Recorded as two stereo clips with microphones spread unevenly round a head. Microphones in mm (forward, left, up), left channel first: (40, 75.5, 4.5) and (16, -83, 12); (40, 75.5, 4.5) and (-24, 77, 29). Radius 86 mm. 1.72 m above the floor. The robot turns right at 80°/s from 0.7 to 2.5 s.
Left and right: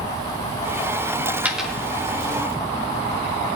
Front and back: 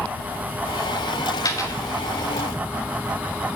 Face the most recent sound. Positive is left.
turn(degrees=55)